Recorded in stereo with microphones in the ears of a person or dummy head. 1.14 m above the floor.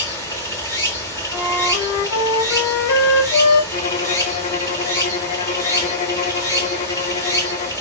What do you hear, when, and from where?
0.0 s running water: 10° left (ahead or behind), 1.2 m
1.3 s a flute: 65° left (ahead or behind), 4.5 m
3.7 s a violin: 30° left (ahead or behind), 0.8 m